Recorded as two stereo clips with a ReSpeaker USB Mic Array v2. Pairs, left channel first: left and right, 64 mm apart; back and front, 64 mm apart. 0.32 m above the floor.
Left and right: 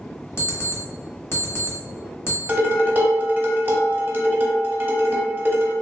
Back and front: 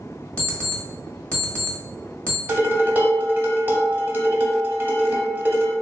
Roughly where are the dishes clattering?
Ahead right.